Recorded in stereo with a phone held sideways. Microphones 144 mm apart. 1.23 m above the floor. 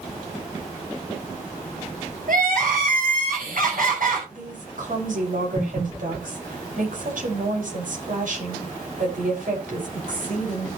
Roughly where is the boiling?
No boiling in this recording.